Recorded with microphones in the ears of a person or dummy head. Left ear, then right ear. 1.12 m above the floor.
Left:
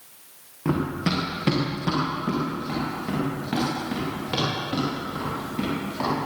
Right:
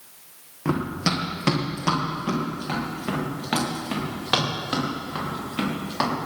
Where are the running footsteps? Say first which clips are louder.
Right 1 dB; 20° right (ahead or behind), 3.5 m; by 6.3 s 60° right (ahead or behind), 8.5 m.